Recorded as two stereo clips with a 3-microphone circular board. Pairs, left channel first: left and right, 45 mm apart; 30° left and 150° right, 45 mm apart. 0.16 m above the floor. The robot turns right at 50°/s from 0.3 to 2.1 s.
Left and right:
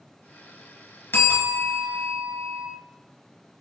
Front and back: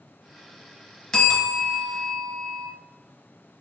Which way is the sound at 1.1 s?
100° left.